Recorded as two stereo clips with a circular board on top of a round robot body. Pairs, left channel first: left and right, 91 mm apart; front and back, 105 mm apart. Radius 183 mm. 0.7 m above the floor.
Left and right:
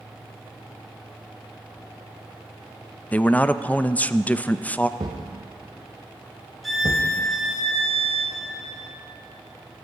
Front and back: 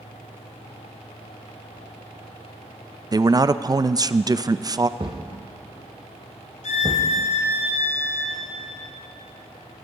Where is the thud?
135° right, 1.3 m.